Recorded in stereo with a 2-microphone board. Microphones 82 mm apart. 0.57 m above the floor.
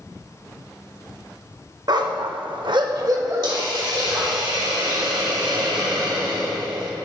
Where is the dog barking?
55° right (ahead or behind), 0.6 m; by 4.4 s 25° right (ahead or behind), 1.7 m.